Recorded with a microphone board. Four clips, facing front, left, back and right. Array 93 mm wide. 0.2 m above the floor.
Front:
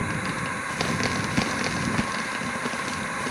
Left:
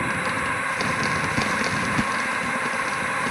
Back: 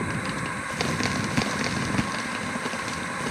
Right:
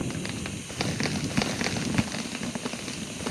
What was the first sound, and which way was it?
A drone, 85° left.